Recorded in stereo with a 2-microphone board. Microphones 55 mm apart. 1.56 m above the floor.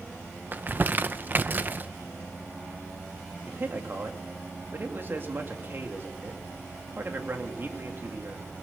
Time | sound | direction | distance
0.5 | crumpling | 35° right (ahead or behind) | 0.7 m
3.5 | a man speaking | 45° right (ahead or behind) | 2.5 m